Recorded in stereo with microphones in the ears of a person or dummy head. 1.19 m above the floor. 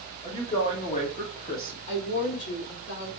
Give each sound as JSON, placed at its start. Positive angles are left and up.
{"t": 0.2, "sound": "a woman speaking", "side_deg": 45, "distance_m": 1.9}
{"t": 1.9, "sound": "a woman speaking", "side_deg": 65, "distance_m": 3.5}